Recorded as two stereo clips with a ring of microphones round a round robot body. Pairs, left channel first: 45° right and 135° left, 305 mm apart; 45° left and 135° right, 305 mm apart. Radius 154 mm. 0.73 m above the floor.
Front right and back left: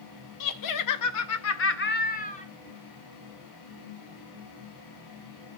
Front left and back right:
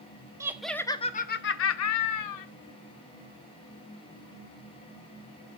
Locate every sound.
0.4 s laughter: 55° right, 0.8 m; by 2.5 s 25° left, 1.2 m